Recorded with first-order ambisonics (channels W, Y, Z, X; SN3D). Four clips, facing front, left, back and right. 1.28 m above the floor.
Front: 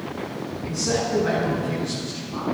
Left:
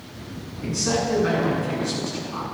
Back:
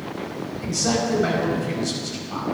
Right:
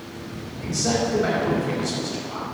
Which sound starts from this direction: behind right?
A man speaking, at 0.6 s.